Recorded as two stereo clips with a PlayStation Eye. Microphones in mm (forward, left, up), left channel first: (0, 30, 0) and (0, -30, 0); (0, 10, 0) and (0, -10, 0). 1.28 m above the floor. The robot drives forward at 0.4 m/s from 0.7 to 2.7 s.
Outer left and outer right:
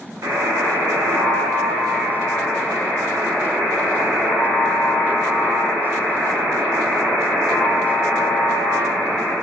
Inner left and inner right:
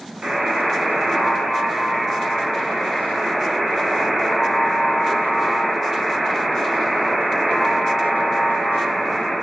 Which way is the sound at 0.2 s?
60° right (ahead or behind).